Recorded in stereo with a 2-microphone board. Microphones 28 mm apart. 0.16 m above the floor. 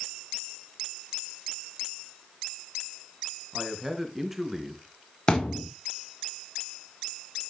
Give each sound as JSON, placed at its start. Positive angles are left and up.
{"t": 3.5, "sound": "a man speaking", "side_deg": -5, "distance_m": 2.5}
{"t": 5.3, "sound": "a thud", "side_deg": 30, "distance_m": 2.5}